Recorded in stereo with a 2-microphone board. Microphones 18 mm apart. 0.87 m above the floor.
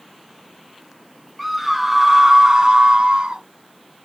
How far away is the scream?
About 1.8 m.